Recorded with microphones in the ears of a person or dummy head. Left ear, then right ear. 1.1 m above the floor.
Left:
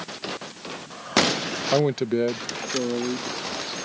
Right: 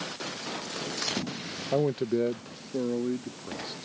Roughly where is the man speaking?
Left.